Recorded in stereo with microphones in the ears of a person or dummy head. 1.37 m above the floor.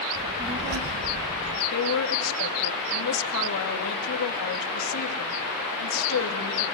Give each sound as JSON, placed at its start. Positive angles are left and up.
{"t": 0.1, "sound": "a child speaking", "side_deg": -15, "distance_m": 1.2}
{"t": 1.7, "sound": "a woman speaking", "side_deg": 85, "distance_m": 2.0}